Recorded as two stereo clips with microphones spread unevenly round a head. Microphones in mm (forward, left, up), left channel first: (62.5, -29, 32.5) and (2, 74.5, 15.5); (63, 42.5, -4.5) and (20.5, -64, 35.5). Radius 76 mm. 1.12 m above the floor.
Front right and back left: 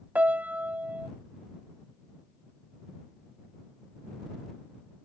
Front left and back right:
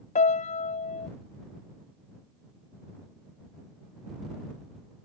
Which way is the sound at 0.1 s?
40° left.